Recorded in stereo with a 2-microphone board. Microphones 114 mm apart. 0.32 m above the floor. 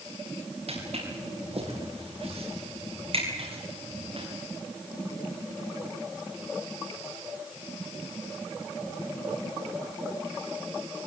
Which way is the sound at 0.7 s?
65° right (ahead or behind).